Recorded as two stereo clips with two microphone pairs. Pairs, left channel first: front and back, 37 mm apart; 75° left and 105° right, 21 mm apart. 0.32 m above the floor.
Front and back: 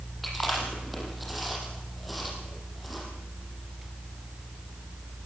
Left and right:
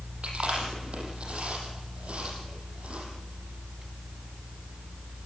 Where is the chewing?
90° right, 6.5 m.